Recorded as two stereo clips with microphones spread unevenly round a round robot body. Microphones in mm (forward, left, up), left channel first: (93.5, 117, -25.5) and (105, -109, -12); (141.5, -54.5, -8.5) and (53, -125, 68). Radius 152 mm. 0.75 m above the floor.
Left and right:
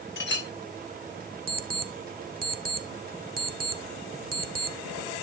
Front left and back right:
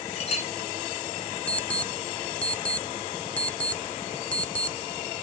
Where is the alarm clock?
35° right, 1.4 m.